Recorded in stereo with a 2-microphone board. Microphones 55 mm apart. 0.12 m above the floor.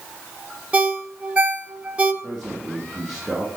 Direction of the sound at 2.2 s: Centre (ahead or behind).